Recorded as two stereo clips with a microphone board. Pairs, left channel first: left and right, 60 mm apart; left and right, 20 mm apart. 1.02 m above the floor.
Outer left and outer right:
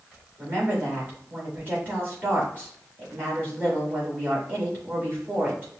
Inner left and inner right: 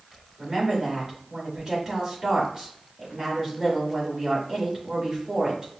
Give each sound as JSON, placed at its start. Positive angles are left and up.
{"t": 0.4, "sound": "a woman speaking", "side_deg": -35, "distance_m": 2.5}